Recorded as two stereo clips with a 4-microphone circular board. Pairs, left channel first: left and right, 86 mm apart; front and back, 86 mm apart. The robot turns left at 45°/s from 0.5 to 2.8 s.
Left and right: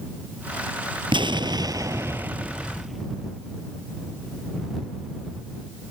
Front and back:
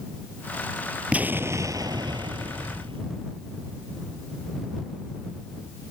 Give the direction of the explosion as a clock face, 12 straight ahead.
4 o'clock.